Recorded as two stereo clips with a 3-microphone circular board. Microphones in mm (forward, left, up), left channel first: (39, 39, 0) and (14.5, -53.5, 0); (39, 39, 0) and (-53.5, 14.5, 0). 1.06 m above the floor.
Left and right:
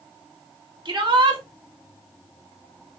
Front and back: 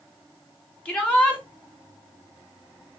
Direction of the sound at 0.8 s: 60° right.